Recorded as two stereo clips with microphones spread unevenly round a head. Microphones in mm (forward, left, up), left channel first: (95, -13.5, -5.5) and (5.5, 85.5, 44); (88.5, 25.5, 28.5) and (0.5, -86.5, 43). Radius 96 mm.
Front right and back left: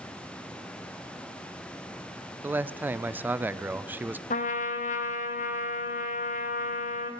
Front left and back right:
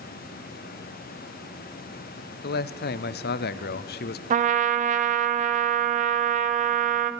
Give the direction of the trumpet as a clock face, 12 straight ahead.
3 o'clock.